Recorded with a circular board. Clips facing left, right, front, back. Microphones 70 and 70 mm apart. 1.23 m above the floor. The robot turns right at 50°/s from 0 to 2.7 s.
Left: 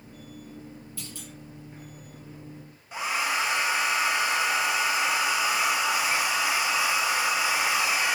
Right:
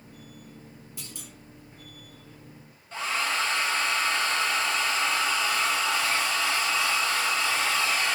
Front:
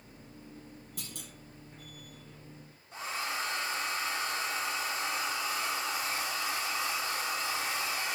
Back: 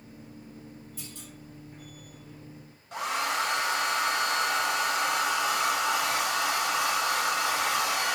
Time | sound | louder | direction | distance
1.0 | a clunk | left 3 dB, back 2 dB | 20° right | 6 m
2.9 | a hair dryer | left 1 dB, back 7 dB | 165° left | 1.1 m